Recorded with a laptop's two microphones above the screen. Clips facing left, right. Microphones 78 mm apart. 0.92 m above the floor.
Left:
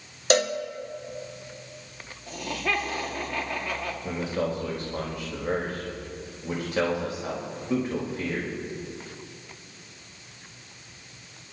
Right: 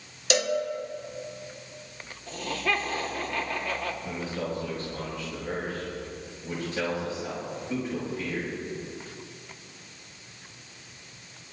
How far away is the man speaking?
About 4 m.